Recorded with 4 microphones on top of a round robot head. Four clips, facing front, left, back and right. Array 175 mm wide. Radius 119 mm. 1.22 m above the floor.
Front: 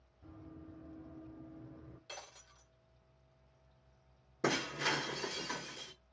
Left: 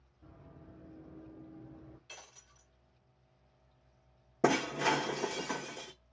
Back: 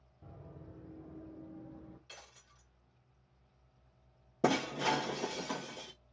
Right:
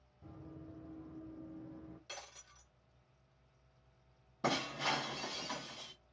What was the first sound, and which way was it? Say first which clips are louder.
Running footsteps: right 4 dB, front 1 dB; 170° right.